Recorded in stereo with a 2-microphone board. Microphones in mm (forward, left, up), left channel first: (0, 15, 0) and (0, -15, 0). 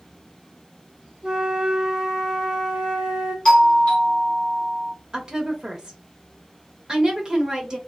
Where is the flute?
30° right (ahead or behind), 1.0 m.